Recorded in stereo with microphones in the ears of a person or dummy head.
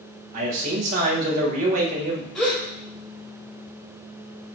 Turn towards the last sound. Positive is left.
turn(degrees=5)  # may be behind; listen again after turning